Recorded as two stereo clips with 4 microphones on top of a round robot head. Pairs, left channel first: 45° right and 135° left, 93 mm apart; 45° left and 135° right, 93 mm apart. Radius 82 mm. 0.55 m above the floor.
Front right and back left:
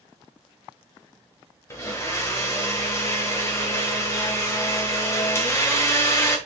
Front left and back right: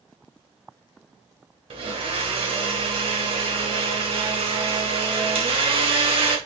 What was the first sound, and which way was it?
A blender, 105° right.